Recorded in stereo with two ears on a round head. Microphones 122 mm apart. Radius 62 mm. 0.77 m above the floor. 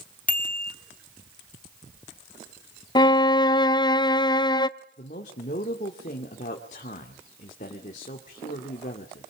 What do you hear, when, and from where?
0.3 s a bicycle bell: 10° left (ahead or behind), 2.5 m
3.0 s a violin: 30° left (ahead or behind), 0.7 m
5.0 s a man speaking: 60° left (ahead or behind), 2.5 m